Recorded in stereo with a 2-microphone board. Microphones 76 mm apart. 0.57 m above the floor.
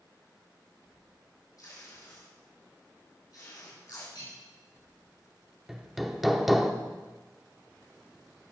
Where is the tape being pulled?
50° left (ahead or behind), 3.5 m.